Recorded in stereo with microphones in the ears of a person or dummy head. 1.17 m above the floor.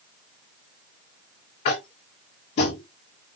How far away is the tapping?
About 0.6 m.